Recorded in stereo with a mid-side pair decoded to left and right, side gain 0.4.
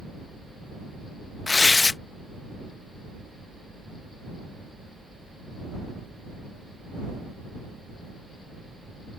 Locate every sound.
1.5 s tearing paper: 30° left